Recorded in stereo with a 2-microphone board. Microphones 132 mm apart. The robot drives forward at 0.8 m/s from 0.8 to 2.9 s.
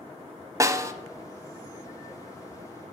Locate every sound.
0.6 s a snare drum: 25° right (ahead or behind), 0.6 m; by 0.9 s 20° right (ahead or behind), 0.6 m